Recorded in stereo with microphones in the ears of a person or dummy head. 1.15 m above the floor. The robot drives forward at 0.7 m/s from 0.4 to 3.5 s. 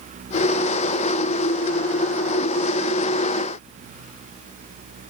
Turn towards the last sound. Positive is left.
No sound to turn to.